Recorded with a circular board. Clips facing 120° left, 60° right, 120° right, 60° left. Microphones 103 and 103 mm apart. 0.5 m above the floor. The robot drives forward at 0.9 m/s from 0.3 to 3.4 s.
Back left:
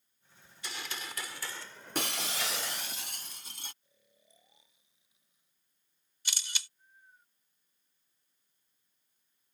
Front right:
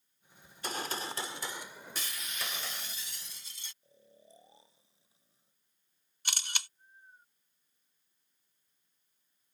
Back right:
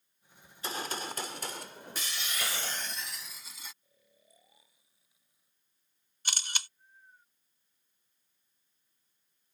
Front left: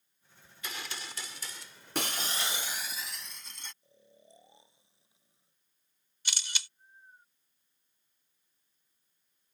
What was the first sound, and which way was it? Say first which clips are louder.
A gunshot: front right 6 dB, back right 6 dB; 70° right.